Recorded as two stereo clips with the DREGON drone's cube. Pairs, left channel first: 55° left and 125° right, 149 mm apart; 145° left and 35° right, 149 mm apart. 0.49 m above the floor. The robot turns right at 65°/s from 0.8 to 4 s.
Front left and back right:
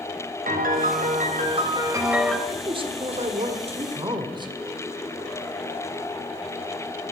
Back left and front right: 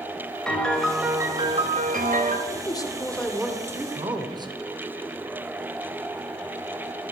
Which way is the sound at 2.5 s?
Straight behind.